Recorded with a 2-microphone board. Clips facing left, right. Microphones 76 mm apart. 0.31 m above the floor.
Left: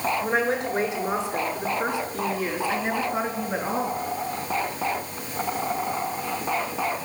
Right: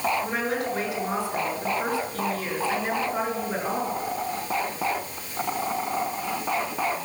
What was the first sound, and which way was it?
A woman speaking, 30° left (ahead or behind).